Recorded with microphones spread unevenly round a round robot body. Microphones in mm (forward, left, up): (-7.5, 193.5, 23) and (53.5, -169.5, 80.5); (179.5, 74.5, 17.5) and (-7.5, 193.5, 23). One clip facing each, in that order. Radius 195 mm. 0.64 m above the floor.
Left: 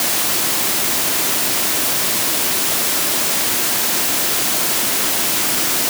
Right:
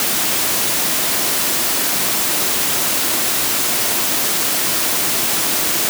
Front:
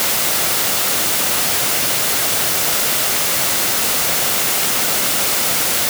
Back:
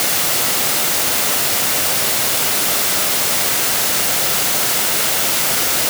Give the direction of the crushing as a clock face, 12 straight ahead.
No crushing in this recording.